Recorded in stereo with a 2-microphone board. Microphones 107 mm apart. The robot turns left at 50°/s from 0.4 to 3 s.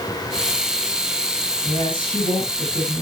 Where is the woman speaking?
145° left, 5 m; by 3.0 s 75° left, 5 m.